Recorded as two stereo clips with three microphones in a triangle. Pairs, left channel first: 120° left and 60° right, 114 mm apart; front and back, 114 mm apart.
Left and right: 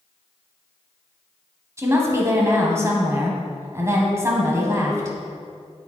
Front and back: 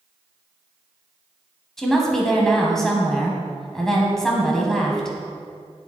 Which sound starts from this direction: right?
A woman speaking, at 1.8 s.